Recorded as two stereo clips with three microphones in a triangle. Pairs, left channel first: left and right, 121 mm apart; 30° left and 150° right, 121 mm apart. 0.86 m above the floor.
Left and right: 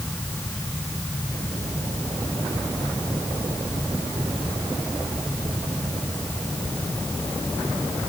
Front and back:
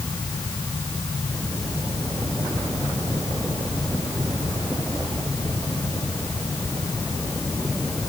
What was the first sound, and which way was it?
Only background noise.